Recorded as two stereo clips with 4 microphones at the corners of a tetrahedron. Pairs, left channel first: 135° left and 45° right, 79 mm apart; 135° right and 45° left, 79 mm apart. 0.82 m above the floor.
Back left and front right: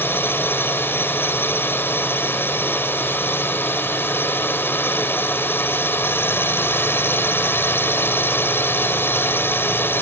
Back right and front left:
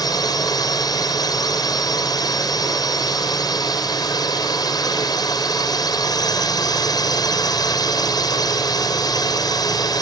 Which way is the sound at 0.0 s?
165° right.